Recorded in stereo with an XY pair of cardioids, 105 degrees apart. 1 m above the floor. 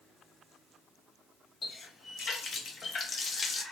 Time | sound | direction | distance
1.6 | a running tap | 45° left | 0.7 m